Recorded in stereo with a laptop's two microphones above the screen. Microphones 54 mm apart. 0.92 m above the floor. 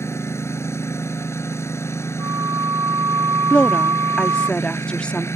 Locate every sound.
0.0 s a lawn mower: 60° left (ahead or behind)
2.2 s a flute: 90° right
3.5 s a woman speaking: 20° left (ahead or behind)